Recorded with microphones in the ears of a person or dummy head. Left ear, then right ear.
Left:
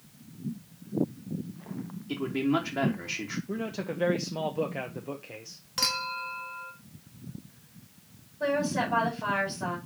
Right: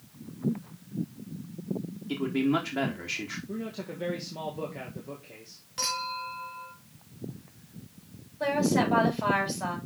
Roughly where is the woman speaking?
Right.